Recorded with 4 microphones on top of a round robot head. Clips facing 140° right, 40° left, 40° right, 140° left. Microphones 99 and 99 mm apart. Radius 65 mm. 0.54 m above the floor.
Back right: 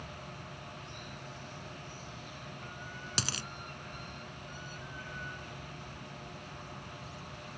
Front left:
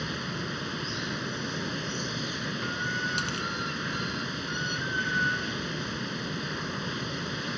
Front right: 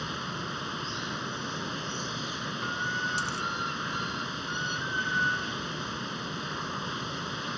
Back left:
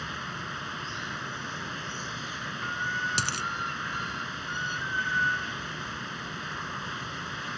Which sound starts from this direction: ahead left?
Running water, at 0.0 s.